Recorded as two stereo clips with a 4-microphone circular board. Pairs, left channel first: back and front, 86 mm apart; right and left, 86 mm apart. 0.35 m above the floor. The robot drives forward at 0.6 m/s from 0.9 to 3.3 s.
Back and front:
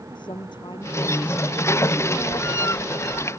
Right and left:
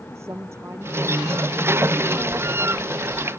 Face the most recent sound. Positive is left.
turn(degrees=155)